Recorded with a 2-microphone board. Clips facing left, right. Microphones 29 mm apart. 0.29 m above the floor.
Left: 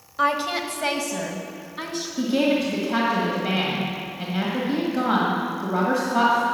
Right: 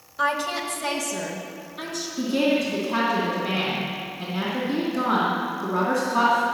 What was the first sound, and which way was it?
A woman speaking, 25° left (ahead or behind).